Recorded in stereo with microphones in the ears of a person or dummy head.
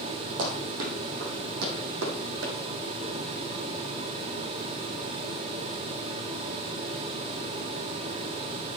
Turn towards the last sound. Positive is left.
turn(degrees=-70)  # may be behind; listen again after turning